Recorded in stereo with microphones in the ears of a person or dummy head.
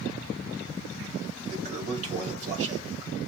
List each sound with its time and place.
1.5 s a toilet flushing: 40° right (ahead or behind), 1.4 m